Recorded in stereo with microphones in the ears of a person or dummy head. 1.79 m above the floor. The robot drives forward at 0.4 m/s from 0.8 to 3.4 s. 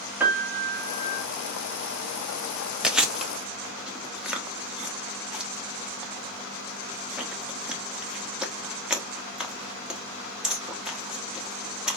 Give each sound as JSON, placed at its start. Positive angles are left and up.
{"t": 0.2, "sound": "a piano", "side_deg": -5, "distance_m": 1.1}
{"t": 2.8, "sound": "chewing", "side_deg": -5, "distance_m": 0.5}